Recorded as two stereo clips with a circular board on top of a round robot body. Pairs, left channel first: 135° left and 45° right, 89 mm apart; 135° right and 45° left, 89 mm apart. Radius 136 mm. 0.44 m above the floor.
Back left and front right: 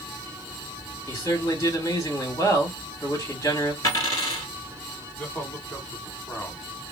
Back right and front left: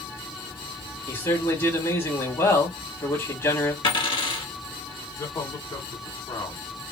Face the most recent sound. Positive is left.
turn(degrees=-165)